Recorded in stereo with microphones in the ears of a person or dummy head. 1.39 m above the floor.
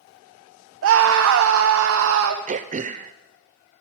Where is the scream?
65° right (ahead or behind), 0.8 m.